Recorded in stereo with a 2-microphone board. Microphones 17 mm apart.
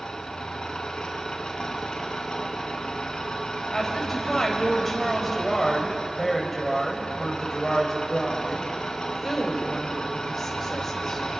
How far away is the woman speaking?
About 4 m.